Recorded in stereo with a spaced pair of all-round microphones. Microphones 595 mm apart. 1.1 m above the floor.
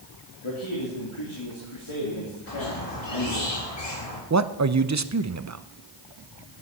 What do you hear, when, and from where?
0.4 s a man speaking: 55° left (ahead or behind), 2.5 m
2.5 s a squeak: 85° left, 2 m
4.3 s a man speaking: 30° right (ahead or behind), 0.5 m